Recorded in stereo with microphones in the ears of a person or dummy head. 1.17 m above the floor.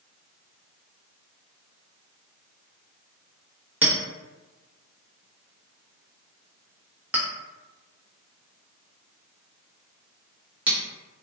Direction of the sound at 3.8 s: 15° right (ahead or behind).